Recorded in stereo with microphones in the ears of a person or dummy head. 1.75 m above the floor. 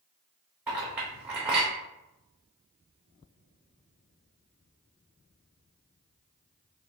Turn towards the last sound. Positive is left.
turn(degrees=-5)  # may be behind; listen again after turning